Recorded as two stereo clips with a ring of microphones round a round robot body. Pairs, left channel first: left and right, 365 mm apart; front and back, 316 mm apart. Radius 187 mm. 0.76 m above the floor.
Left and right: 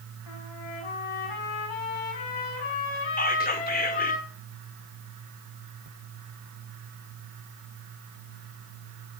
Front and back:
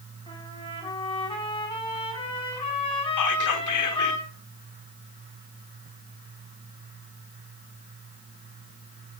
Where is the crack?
I don't hear a crack.